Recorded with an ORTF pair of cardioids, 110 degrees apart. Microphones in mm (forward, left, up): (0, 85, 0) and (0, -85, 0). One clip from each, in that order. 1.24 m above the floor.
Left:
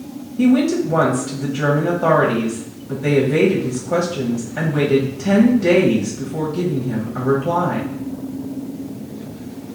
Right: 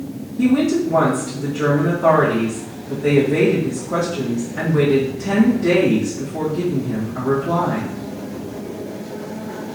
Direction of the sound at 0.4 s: 30° left.